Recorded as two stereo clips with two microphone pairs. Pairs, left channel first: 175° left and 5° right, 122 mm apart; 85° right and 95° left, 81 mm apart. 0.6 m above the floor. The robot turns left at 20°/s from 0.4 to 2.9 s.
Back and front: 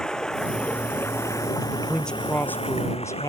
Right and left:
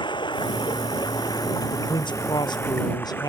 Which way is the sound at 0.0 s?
100° right.